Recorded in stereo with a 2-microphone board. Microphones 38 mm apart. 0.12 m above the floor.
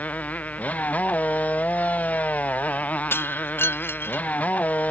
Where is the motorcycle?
45° left (ahead or behind).